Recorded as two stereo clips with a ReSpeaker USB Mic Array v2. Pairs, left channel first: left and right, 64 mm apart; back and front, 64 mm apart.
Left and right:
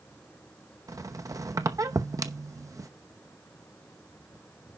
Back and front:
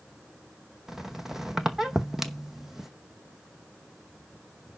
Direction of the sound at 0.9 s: 85° right.